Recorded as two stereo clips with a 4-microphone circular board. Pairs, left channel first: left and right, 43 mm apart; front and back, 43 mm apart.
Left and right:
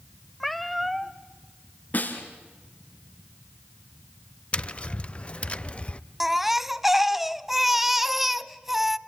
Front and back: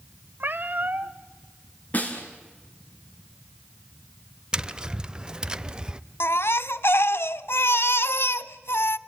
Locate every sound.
0.4 s a cat meowing: straight behind, 1.0 m
1.9 s a snare drum: 45° left, 3 m
4.5 s tapping: 125° left, 0.6 m
6.2 s a baby crying: 5° right, 0.5 m